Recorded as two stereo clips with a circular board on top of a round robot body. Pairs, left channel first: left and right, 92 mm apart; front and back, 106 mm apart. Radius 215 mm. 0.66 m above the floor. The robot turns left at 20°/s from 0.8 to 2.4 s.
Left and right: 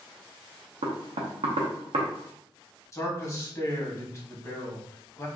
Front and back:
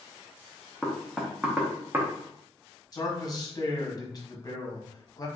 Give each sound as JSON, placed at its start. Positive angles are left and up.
{"t": 0.8, "sound": "knocking", "azimuth_deg": -85, "distance_m": 0.5}
{"t": 2.9, "sound": "a man speaking", "azimuth_deg": 40, "distance_m": 1.1}